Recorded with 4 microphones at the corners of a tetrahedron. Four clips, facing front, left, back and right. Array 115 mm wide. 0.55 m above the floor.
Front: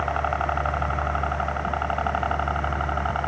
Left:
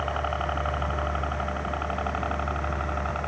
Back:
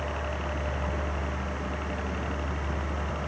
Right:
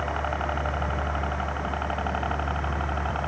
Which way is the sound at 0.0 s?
10° left.